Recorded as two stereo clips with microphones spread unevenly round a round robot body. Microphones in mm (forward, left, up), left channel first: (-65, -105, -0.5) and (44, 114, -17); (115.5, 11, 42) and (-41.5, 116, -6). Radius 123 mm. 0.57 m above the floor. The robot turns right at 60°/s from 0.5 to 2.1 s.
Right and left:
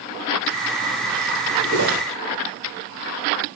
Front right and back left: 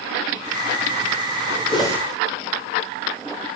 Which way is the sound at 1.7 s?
35° left.